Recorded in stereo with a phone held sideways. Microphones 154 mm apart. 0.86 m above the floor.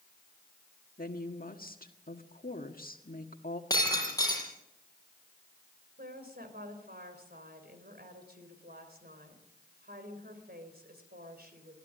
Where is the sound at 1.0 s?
65° left (ahead or behind), 1.6 m.